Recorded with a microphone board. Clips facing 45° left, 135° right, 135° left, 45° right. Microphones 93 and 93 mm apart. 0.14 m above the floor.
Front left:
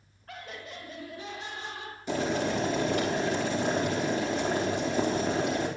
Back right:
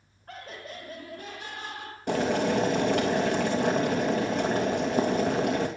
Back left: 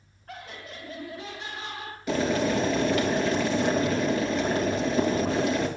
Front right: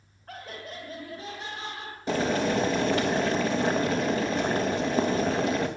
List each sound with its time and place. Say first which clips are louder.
0.3 s laughter: back right 1 dB, front right 1 dB; 85° right, 2.5 m; by 2.0 s 105° right, 3.5 m
2.1 s boiling: back right 3 dB, back left 1 dB; 105° right, 2.5 m